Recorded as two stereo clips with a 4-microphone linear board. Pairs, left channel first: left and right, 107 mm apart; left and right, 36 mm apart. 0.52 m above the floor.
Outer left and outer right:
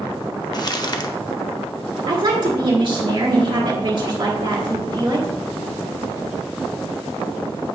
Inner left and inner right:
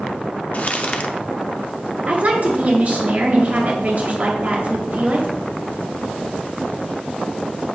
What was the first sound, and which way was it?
Crumpling, 40° left (ahead or behind).